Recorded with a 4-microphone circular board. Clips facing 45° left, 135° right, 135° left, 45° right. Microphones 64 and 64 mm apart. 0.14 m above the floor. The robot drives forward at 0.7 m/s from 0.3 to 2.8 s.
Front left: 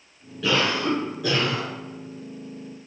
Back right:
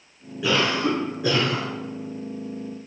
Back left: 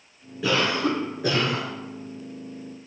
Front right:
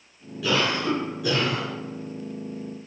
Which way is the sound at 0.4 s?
165° left.